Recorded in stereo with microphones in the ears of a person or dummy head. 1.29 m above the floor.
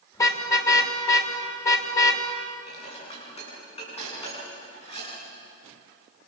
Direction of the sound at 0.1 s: 20° left (ahead or behind).